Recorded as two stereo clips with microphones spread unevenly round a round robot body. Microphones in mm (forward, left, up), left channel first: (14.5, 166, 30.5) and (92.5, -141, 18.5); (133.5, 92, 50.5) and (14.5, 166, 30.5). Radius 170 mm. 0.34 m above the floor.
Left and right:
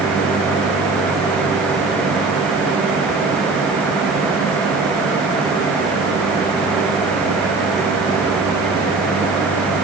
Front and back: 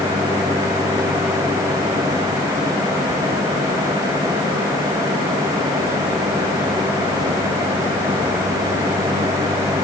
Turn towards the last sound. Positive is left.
No sound to turn to.